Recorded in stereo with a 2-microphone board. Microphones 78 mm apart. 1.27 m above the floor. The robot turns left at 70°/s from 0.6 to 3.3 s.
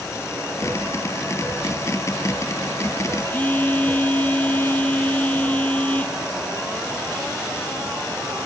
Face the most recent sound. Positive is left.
turn(degrees=20)  # may be behind; listen again after turning